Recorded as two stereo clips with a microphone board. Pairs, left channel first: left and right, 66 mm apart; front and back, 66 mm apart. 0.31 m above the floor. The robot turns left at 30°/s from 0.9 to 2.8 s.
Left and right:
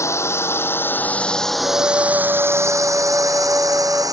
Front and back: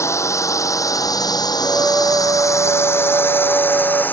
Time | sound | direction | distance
0.0 | a drone | 40° left | ?
1.6 | a flute | 130° right | ?